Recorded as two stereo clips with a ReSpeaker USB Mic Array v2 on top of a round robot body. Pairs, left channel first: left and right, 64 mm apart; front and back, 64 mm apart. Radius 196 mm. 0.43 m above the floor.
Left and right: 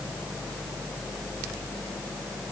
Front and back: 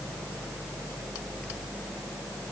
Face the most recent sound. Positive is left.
No sound to turn to.